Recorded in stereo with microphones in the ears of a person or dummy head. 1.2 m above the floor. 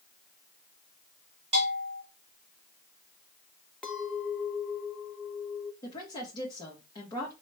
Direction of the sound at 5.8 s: 25° left (ahead or behind).